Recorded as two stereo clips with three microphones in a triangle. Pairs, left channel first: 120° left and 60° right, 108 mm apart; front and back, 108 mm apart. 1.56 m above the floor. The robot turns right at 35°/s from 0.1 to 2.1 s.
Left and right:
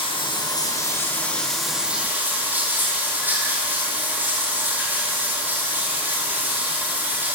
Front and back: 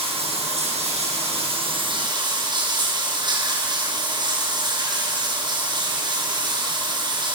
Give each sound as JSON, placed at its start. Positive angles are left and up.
{"t": 0.0, "sound": "running water", "azimuth_deg": 155, "distance_m": 8.5}